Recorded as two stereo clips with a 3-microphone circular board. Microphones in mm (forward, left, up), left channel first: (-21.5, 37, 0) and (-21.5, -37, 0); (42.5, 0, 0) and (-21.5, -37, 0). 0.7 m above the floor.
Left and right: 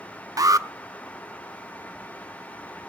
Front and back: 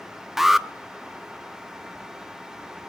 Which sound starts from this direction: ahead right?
An alarm, at 0.4 s.